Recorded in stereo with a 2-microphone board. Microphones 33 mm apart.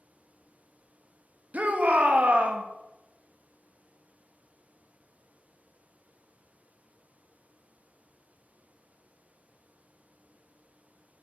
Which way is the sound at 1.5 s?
50° right (ahead or behind).